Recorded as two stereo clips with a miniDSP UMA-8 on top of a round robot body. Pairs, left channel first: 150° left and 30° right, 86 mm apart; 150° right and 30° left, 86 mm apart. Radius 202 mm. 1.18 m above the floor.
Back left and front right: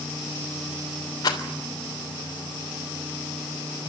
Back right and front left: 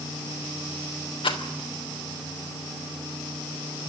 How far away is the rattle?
About 3 m.